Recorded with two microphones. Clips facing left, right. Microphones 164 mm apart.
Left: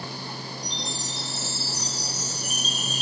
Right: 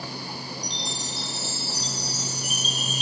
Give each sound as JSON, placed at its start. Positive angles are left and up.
{"t": 0.6, "sound": "a chime", "side_deg": 40, "distance_m": 2.5}